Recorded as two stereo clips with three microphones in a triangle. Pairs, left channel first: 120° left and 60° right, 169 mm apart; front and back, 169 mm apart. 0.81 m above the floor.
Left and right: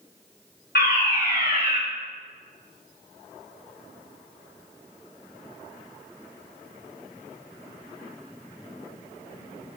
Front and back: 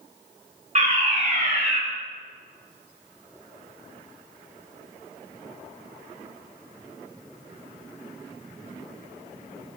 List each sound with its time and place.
0.8 s a fire alarm: 135° left, 6.5 m